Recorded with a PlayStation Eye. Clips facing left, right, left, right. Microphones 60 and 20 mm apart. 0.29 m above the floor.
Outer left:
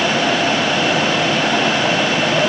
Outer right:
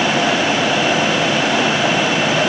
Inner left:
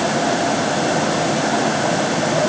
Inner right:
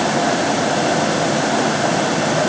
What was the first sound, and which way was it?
Only background noise.